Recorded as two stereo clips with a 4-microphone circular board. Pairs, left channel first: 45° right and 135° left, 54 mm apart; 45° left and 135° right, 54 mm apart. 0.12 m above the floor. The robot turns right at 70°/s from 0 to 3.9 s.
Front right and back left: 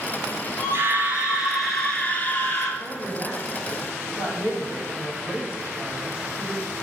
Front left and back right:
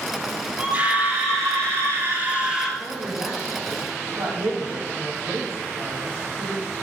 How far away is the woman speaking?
About 4 m.